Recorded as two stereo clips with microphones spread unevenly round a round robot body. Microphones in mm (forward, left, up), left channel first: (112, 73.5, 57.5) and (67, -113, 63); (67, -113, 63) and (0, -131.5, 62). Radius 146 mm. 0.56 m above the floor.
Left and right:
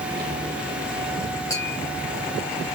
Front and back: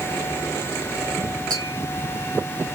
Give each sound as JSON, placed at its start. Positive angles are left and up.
{"t": 1.5, "sound": "tapping", "azimuth_deg": 155, "distance_m": 1.4}